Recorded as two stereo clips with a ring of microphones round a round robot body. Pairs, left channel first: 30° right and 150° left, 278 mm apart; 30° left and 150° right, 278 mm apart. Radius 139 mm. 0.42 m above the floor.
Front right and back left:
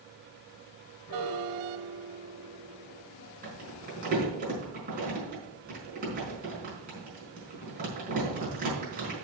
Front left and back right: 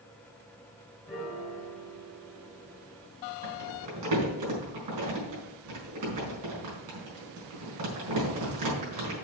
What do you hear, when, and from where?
1.1 s a piano: 60° right, 4 m
3.4 s crumpling: 150° right, 4.5 m